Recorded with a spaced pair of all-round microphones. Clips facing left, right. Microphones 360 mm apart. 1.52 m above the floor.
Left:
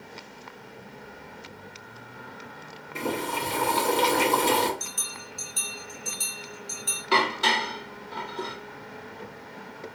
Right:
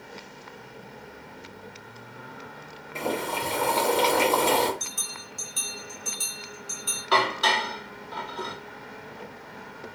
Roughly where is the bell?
Centre.